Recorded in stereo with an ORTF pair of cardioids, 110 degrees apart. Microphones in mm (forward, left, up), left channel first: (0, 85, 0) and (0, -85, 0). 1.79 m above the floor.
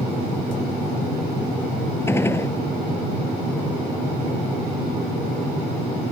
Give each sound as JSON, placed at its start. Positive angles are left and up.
{"t": 2.1, "sound": "a gunshot", "azimuth_deg": 15}